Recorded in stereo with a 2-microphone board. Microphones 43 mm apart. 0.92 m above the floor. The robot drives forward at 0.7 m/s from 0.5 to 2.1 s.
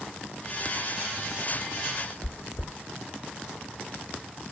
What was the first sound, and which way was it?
Chewing, 60° left (ahead or behind).